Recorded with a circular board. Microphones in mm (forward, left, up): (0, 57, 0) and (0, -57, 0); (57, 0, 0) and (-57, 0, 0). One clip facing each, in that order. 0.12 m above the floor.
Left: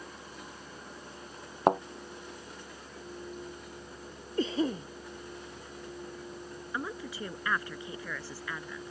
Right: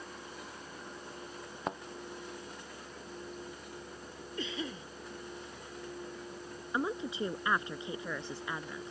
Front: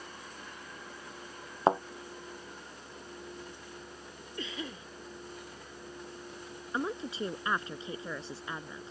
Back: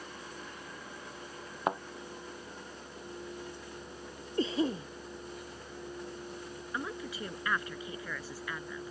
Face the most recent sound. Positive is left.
turn(degrees=-40)